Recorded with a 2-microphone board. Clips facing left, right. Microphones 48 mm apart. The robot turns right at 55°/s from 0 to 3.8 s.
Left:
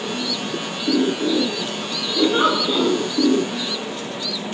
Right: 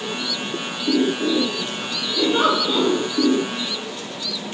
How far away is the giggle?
About 1.0 m.